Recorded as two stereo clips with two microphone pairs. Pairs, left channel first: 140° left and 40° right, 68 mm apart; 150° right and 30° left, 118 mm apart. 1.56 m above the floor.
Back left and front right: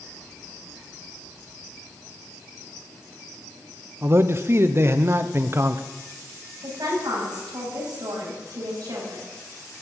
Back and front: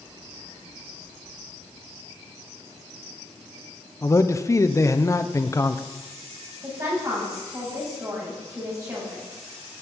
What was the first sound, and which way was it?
A man speaking, 90° right.